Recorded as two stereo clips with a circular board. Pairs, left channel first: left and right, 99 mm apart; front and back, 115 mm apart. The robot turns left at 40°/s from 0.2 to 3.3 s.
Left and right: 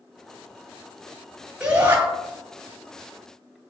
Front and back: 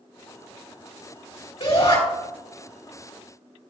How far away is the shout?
About 3.5 m.